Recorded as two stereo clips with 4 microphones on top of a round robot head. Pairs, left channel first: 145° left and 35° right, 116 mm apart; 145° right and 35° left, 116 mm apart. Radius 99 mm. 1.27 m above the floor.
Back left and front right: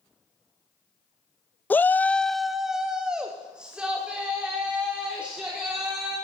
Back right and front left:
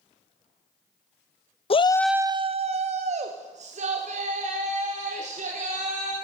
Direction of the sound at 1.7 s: 140° right.